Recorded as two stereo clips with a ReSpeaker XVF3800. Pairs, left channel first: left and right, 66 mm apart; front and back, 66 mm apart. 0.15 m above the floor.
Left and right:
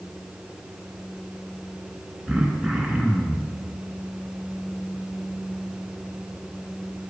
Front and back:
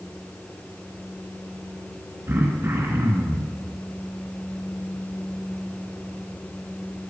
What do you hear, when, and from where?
2.3 s throat clearing: 170° right, 1.8 m